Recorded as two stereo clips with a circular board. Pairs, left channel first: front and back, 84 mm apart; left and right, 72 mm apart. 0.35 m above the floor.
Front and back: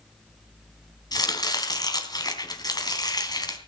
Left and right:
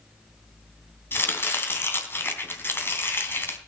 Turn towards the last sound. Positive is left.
turn(degrees=30)